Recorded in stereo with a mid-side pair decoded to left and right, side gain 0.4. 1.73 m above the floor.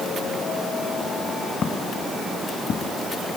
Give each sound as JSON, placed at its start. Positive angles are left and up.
{"t": 1.6, "sound": "footsteps", "azimuth_deg": 50}